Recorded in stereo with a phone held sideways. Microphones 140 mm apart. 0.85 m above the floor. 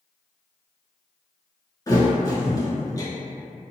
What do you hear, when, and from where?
1.9 s a thud: 25° left (ahead or behind), 1.0 m